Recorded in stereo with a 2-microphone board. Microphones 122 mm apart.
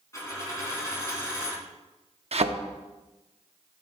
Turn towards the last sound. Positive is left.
turn(degrees=-55)  # may be behind; listen again after turning